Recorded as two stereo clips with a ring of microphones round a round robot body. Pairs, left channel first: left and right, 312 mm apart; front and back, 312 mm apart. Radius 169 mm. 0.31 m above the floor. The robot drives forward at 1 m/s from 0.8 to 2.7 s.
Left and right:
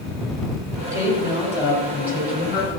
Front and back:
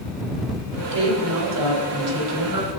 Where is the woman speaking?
165° right, 1.7 m; by 2.8 s 175° right, 3 m.